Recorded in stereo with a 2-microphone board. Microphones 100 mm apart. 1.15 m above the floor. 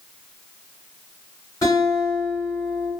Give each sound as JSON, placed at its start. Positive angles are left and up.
{"t": 1.6, "sound": "a guitar", "side_deg": 35, "distance_m": 1.1}